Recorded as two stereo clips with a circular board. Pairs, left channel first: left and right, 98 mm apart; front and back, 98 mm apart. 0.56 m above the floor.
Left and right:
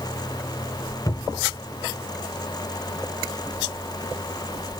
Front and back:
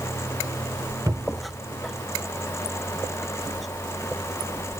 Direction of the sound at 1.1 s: 130° left.